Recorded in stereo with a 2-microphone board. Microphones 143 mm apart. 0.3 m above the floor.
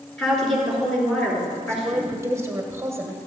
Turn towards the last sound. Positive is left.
turn(degrees=-20)  # may be behind; listen again after turning